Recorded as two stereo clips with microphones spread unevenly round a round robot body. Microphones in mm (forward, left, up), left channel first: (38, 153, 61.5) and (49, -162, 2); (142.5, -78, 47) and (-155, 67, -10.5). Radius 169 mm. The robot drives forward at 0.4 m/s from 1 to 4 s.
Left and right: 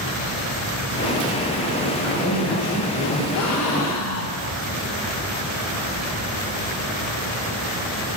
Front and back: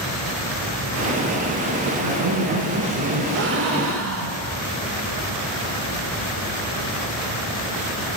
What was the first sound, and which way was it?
A man speaking, straight behind.